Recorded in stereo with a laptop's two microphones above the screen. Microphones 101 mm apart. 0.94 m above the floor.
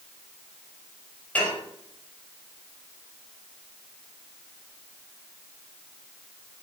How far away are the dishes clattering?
About 3 m.